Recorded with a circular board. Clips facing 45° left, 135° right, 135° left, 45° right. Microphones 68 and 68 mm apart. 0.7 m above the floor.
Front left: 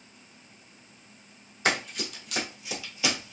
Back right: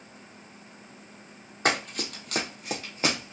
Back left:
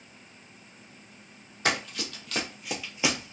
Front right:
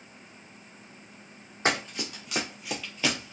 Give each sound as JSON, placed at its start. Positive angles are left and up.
{"t": 1.6, "sound": "running footsteps", "azimuth_deg": -100, "distance_m": 1.4}